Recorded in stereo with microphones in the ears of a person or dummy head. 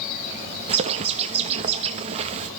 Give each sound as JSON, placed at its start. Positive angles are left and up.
{"t": 0.7, "sound": "a bird", "side_deg": -35, "distance_m": 1.2}